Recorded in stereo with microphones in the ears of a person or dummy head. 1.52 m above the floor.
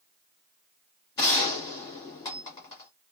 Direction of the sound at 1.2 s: 25° left (ahead or behind).